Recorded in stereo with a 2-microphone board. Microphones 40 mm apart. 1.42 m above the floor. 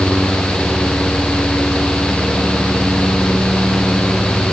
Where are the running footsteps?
No running footsteps in this recording.